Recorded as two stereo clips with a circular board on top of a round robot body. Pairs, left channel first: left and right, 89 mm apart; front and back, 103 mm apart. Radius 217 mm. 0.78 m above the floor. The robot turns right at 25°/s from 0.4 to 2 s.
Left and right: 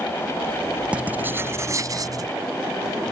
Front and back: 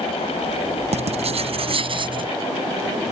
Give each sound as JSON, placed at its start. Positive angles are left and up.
{"t": 0.9, "sound": "writing", "azimuth_deg": -165}